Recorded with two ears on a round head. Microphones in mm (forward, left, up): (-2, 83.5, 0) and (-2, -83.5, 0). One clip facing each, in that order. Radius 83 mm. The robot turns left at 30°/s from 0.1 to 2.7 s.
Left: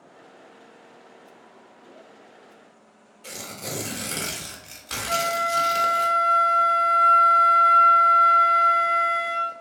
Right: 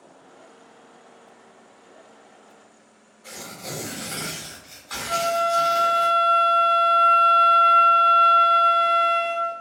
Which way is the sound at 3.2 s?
35° left (ahead or behind).